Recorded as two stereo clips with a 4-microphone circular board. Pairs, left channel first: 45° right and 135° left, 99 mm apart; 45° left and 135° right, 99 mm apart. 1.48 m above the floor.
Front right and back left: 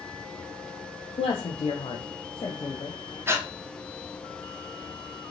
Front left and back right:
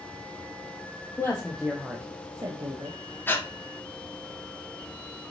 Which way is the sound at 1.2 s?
25° right.